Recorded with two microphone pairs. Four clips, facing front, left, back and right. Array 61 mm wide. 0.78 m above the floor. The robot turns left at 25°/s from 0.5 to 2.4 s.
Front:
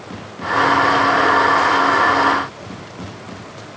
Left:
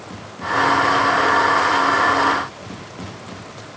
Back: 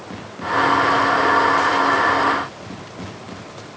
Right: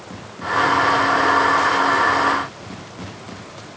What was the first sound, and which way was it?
Only background noise.